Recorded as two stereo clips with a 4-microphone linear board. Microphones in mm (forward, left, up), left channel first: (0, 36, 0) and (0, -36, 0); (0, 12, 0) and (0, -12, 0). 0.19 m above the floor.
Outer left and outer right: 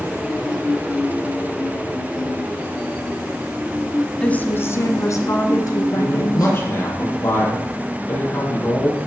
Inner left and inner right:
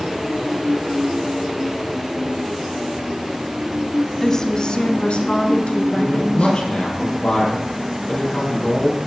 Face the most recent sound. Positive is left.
turn(degrees=35)  # may be behind; listen again after turning